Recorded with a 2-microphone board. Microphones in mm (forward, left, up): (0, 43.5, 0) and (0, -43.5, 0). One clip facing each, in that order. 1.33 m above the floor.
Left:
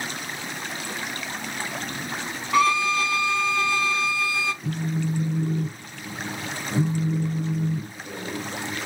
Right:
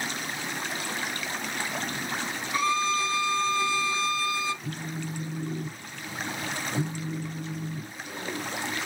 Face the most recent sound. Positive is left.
turn(degrees=70)  # may be behind; listen again after turning